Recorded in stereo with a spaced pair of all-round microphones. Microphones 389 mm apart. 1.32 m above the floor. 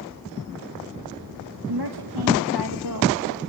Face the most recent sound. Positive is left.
turn(degrees=-55)  # may be behind; listen again after turning